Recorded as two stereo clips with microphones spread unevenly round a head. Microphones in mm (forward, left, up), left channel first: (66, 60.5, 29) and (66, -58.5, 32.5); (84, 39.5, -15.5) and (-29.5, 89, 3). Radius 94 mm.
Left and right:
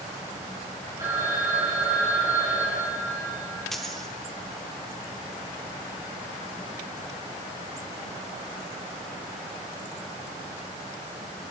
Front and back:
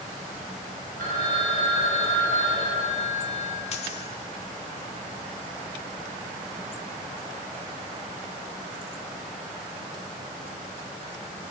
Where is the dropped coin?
Straight ahead, 1.2 m.